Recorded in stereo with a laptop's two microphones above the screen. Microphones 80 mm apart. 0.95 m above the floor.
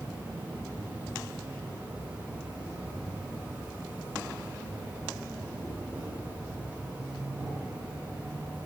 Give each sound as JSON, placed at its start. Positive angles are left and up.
{"t": 0.0, "sound": "an insect", "side_deg": -20, "distance_m": 9.5}